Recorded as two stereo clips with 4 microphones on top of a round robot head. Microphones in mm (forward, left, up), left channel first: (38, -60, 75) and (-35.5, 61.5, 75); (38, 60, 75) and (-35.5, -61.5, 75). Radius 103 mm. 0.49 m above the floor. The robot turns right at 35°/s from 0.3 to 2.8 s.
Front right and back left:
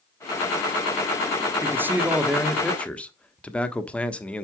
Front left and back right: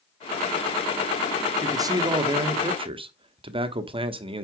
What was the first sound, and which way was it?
A man speaking, 175° right.